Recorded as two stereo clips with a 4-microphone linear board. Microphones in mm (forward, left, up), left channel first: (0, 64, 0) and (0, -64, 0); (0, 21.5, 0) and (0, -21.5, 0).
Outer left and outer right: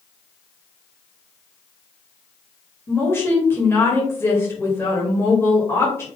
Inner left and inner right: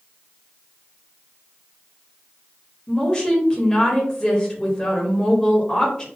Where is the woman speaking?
20° left (ahead or behind), 1.3 m.